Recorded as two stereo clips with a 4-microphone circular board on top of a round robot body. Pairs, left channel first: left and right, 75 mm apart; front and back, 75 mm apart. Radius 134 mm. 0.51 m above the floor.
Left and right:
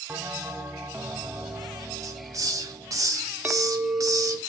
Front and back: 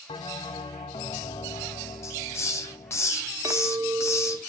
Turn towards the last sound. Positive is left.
turn(degrees=-150)